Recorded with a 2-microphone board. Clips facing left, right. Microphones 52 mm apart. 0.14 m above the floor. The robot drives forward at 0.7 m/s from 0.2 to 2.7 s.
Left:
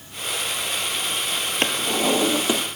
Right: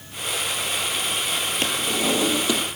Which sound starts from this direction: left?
A drawer, at 1.6 s.